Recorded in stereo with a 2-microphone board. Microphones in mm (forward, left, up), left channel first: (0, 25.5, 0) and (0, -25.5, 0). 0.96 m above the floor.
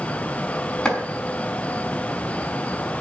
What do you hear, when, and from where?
0.8 s chopping: 15° left (ahead or behind), 5 m